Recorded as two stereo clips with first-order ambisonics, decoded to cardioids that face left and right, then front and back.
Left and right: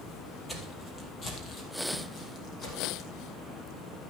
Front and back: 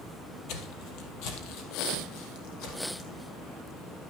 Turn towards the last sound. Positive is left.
turn(degrees=35)